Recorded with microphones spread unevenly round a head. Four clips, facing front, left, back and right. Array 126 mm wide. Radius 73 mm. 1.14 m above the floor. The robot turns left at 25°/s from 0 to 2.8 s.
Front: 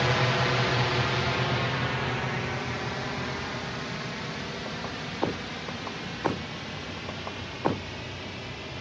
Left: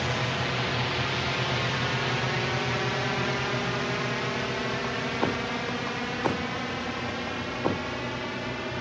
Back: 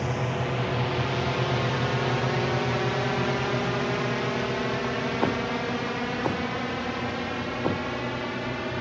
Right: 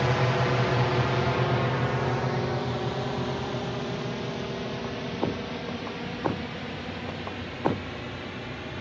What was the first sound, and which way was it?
A drone, 60° right.